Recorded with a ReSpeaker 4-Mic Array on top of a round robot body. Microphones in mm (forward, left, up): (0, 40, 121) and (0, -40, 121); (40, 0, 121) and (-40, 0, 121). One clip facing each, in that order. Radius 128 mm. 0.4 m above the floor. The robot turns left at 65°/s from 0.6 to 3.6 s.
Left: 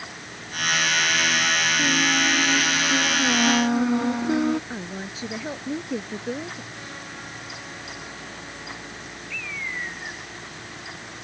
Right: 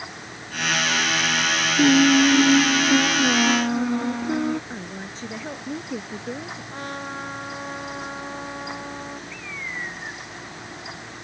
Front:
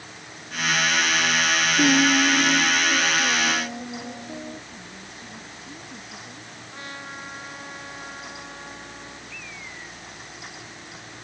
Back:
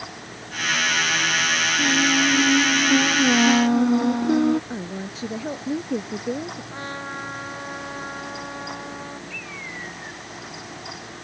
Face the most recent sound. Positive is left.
turn(degrees=-155)